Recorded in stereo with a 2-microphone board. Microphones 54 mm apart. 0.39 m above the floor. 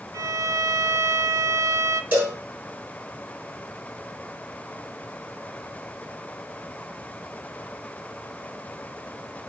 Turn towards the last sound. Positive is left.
turn(degrees=-35)  # may be behind; listen again after turning